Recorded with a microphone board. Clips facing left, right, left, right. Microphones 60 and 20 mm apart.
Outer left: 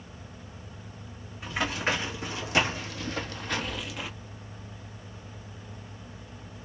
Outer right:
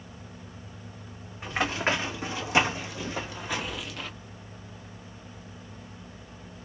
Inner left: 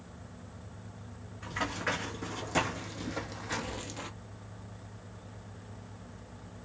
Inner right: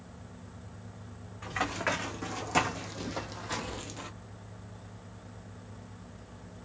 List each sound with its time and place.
1.4 s running footsteps: 30° right (ahead or behind), 2 m; by 4.1 s 10° left (ahead or behind), 0.6 m